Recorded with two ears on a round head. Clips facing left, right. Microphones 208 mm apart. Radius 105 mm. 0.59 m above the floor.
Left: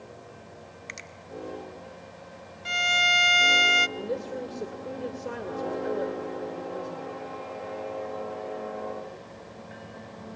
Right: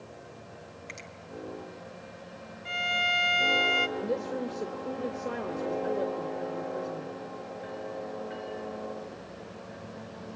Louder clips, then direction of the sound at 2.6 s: Left 3 dB; 55° left (ahead or behind).